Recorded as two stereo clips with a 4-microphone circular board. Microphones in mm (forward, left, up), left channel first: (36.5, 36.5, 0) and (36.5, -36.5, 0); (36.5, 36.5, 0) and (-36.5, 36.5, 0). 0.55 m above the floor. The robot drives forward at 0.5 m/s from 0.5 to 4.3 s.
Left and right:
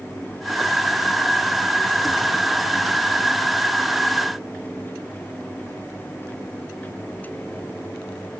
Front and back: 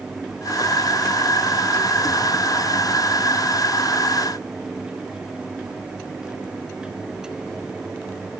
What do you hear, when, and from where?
Only background noise.